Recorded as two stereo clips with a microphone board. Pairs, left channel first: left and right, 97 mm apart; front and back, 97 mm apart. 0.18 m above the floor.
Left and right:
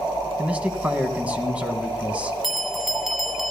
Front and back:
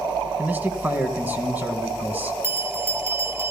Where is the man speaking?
145° right, 1.2 m.